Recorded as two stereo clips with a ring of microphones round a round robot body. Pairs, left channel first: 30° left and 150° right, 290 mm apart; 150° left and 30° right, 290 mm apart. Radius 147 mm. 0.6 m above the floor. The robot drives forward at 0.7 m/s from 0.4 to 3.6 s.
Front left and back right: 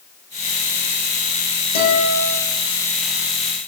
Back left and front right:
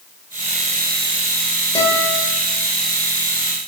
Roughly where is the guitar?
Ahead left.